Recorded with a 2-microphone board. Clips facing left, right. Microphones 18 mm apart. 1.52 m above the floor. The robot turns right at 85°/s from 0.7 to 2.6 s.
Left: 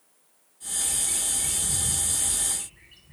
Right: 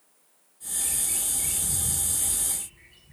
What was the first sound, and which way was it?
A bird, 95° right.